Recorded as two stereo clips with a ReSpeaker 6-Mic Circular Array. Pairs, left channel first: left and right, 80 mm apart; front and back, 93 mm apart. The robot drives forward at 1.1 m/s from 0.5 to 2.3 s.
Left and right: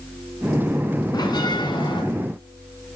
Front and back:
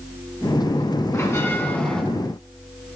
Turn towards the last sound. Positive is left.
turn(degrees=90)